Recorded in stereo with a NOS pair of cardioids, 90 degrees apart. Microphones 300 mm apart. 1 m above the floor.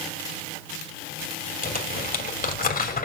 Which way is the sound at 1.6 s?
30° left.